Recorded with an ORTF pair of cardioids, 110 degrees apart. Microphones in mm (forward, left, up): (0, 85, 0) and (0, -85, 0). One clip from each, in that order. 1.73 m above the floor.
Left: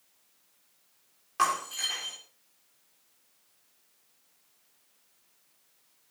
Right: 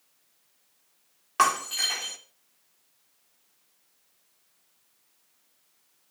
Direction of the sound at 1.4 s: 50° right.